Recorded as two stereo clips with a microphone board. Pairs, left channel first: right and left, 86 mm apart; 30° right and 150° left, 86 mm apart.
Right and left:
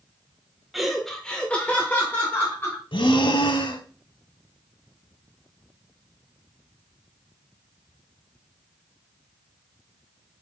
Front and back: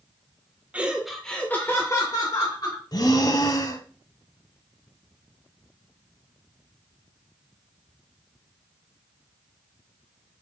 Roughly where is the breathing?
Right.